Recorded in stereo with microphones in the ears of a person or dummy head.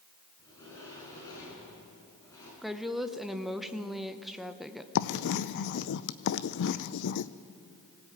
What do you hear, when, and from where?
0.4 s a sliding door: 25° left (ahead or behind), 7 m
2.6 s a woman speaking: 5° left (ahead or behind), 0.8 m
5.0 s writing: 60° left (ahead or behind), 0.6 m